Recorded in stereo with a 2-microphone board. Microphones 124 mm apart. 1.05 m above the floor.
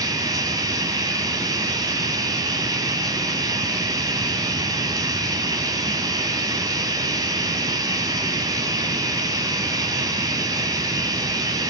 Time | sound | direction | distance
0.0 | running water | 30° right (ahead or behind) | 1.7 m